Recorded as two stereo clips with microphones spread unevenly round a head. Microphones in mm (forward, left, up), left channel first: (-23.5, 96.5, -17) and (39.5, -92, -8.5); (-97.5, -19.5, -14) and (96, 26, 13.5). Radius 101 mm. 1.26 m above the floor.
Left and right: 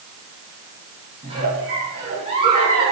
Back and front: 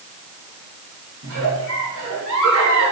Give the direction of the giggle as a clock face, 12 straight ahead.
12 o'clock.